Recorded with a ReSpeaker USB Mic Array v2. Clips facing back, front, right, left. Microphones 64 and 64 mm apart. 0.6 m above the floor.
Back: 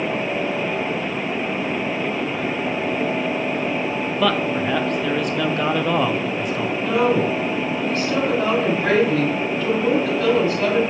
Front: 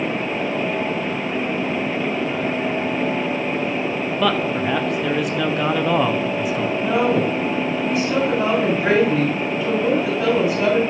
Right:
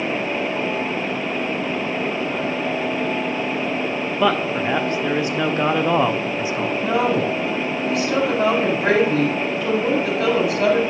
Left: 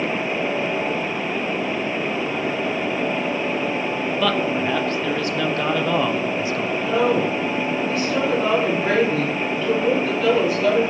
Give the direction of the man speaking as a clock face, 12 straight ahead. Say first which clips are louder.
Even, right 2 dB; 3 o'clock.